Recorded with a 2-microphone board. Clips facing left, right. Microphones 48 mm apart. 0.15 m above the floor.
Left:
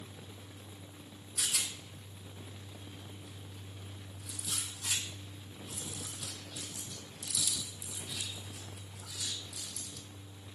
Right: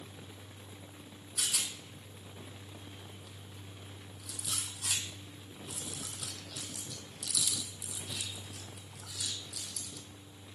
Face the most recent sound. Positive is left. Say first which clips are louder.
# even
turn(degrees=-75)  # may be behind; listen again after turning